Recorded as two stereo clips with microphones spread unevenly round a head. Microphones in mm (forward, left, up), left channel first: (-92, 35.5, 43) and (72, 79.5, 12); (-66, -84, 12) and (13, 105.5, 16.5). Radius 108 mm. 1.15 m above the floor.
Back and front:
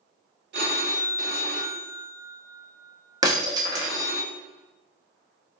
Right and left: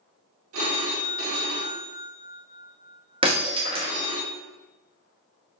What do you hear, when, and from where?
0.5 s a phone ringing: 35° left, 0.7 m
3.2 s breaking glass: 80° left, 0.5 m